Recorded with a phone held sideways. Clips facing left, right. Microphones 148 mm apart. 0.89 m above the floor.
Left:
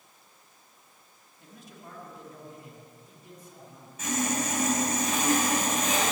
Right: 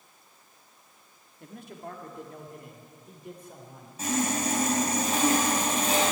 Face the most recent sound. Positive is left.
turn(degrees=-35)  # may be behind; listen again after turning